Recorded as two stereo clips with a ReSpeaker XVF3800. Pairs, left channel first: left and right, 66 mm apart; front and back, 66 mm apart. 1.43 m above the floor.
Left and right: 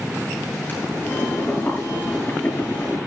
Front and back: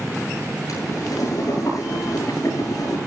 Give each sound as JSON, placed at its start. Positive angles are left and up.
{"t": 0.7, "sound": "boiling", "azimuth_deg": 30, "distance_m": 9.5}